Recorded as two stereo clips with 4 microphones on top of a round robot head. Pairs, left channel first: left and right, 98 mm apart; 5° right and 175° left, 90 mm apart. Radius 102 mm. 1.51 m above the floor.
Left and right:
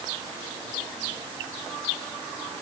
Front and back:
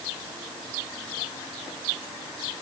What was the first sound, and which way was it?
Only background noise.